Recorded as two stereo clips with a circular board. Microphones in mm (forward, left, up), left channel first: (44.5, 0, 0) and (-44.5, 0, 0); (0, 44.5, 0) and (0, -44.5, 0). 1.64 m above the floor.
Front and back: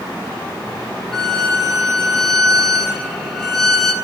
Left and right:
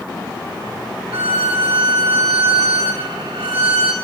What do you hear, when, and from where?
1.1 s a violin: 85° right, 2.5 m